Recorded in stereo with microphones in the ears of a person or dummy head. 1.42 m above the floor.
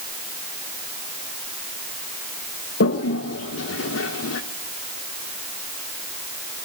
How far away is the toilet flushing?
About 1.2 m.